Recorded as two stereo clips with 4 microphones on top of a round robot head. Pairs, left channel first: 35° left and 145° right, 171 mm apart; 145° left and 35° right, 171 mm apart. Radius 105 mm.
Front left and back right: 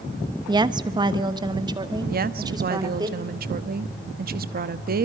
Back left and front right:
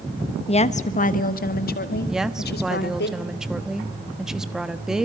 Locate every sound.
0.5 s a woman speaking: 170° left, 1.0 m; by 3.1 s 150° left, 2.5 m
2.1 s a woman speaking: 125° right, 1.0 m